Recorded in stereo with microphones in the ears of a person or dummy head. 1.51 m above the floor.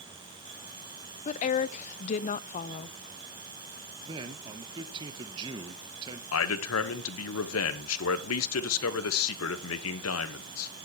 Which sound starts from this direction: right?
A man speaking, at 4.0 s.